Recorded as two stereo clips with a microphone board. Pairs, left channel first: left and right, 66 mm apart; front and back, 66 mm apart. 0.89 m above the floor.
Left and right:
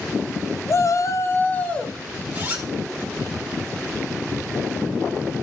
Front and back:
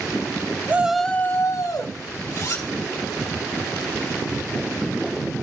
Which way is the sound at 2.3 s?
25° right.